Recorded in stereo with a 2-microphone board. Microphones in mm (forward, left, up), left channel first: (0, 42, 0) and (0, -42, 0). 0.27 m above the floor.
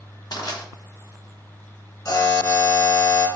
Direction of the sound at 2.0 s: 40° left (ahead or behind).